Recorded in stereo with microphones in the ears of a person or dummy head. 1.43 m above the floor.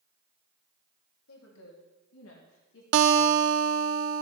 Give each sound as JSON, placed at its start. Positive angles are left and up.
{"t": 1.3, "sound": "a woman speaking", "side_deg": 85, "distance_m": 3.0}
{"t": 2.9, "sound": "a guitar", "side_deg": -70, "distance_m": 0.6}